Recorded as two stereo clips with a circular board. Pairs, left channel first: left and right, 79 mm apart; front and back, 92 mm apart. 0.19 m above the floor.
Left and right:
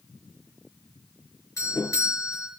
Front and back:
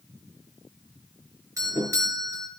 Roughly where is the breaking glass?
No breaking glass in this recording.